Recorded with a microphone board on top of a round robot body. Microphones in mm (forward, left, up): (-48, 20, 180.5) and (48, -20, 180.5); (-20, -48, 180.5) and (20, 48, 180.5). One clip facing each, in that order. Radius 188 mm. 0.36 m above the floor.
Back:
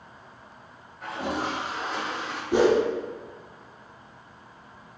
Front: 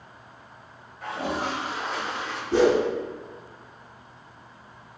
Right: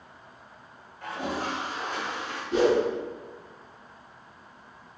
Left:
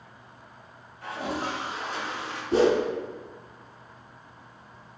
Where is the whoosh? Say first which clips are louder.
Even, left 1 dB; 95° left, 0.9 m.